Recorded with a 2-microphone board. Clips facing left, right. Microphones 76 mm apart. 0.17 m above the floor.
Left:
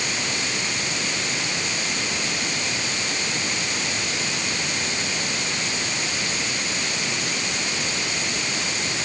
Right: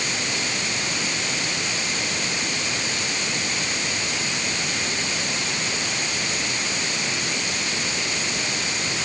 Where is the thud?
No thud in this recording.